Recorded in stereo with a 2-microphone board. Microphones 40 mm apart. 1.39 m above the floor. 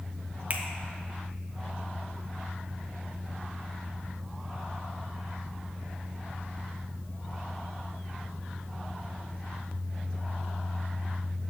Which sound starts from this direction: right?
A finger snap, at 0.5 s.